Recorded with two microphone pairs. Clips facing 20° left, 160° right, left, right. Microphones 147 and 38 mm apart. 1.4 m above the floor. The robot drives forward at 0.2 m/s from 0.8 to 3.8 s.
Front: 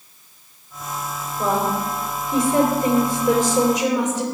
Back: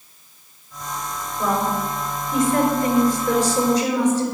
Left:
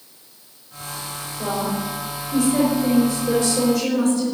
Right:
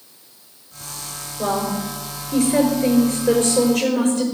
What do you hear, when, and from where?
1.4 s a woman speaking: 55° right, 5 m; by 4.2 s 60° right, 4.5 m